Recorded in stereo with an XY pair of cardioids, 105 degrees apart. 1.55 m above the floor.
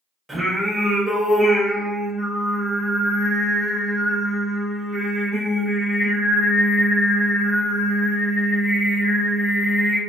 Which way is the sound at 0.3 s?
15° right.